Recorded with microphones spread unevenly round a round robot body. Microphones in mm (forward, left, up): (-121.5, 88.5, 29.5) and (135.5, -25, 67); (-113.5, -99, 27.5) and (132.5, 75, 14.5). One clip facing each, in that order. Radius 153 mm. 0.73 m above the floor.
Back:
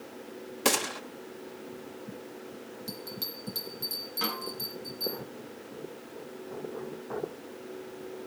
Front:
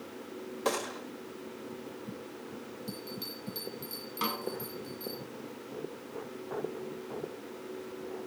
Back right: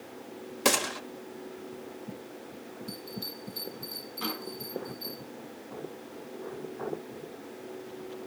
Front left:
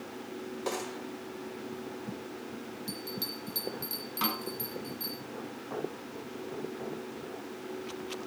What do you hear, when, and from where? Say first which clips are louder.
0.7 s a gunshot: back 3 dB, back right 7 dB; 155° right, 1.8 m
2.9 s a bell: even, even; 85° left, 7.5 m
4.2 s a snare drum: front 1 dB, front left 1 dB; 55° left, 7.5 m